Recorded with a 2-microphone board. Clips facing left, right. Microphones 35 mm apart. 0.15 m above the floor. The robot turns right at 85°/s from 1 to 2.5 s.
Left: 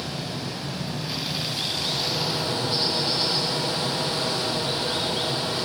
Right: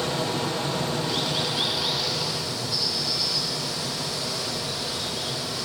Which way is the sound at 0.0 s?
90° right.